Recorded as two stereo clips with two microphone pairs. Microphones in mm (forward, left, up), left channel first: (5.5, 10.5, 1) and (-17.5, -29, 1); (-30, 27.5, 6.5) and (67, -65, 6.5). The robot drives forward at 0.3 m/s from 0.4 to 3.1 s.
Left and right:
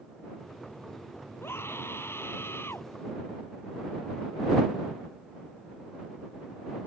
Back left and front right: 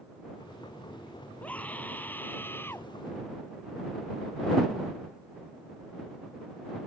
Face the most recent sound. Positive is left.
turn(degrees=65)